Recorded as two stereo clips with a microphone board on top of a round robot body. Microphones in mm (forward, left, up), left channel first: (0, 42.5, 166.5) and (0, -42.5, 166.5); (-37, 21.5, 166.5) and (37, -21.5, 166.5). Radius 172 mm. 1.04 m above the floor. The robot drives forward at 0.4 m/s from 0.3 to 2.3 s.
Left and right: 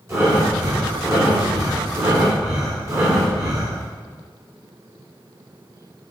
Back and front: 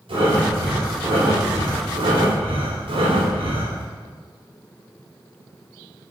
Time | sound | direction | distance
0.1 | breathing | 30° right | 4 m